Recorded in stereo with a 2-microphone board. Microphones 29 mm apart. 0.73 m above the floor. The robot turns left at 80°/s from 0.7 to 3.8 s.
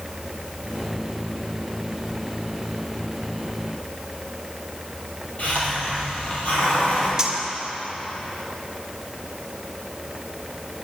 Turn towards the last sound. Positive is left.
turn(degrees=-20)  # may be behind; listen again after turning